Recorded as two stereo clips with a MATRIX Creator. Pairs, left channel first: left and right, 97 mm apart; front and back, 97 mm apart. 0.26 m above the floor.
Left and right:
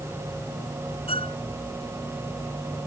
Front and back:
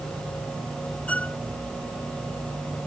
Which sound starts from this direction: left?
A violin, at 1.1 s.